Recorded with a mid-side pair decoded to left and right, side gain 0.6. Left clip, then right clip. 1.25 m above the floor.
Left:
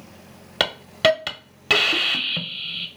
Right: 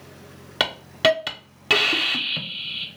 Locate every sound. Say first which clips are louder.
0.6 s a hiss: left 1 dB; 5° left, 0.7 m